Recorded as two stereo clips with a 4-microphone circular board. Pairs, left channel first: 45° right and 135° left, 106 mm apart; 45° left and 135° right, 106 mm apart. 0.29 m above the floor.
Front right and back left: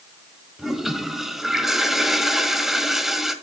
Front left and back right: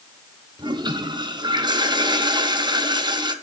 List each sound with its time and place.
0.6 s a toilet flushing: 140° right, 1.7 m